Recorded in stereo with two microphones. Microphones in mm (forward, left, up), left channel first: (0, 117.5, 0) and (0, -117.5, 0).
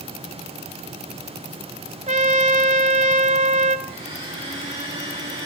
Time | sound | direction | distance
2.1 | a trumpet | 30° right (ahead or behind) | 0.8 m
3.9 | a blender | 20° right (ahead or behind) | 5.5 m